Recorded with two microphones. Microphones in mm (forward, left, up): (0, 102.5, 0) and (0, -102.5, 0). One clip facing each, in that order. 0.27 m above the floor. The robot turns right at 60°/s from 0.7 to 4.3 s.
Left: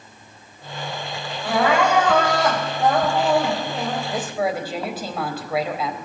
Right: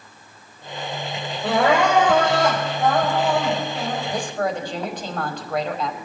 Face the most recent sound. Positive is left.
turn(degrees=5)  # may be behind; listen again after turning